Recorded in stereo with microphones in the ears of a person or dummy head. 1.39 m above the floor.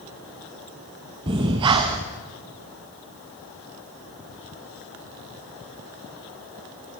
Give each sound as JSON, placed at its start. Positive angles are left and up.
{"t": 1.3, "sound": "breathing", "side_deg": -15, "distance_m": 0.7}